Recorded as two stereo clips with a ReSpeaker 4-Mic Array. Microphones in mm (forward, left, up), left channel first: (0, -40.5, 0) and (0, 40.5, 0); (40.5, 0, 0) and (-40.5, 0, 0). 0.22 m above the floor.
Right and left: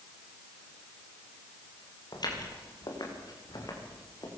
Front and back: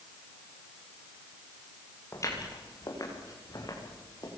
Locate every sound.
2.1 s footsteps: 55° right, 7.5 m; by 4.3 s 45° right, 7.5 m